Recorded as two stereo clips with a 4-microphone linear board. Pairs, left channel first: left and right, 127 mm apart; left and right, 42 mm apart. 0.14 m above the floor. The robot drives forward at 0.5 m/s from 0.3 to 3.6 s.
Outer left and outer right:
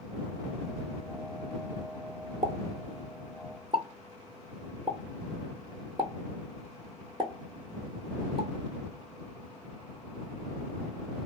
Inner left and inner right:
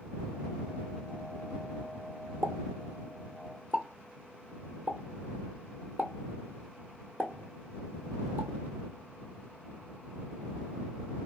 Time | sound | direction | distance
2.4 | a pop | 70° right (ahead or behind) | 0.8 m